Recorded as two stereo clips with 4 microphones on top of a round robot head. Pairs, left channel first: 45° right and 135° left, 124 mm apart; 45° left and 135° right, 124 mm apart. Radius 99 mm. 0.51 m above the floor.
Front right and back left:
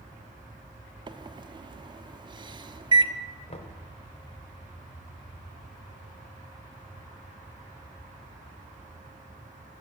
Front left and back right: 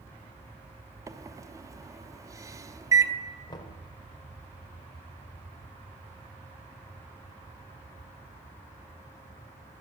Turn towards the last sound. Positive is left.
turn(degrees=-10)